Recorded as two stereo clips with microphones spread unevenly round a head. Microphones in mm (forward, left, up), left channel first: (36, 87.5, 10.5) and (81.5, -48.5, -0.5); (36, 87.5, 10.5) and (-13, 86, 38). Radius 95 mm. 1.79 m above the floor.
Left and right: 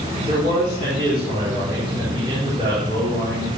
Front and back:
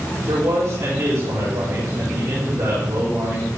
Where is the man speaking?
135° right, 5.5 m.